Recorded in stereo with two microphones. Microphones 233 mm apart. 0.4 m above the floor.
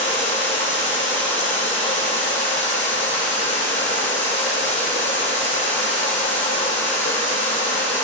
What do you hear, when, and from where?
0.0 s running water: 55° left (ahead or behind), 4 m